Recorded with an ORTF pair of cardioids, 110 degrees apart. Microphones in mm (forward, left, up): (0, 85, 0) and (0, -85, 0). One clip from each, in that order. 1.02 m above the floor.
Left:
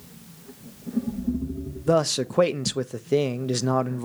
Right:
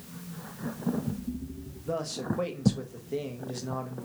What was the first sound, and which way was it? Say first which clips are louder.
A man speaking: left 11 dB; 65° left.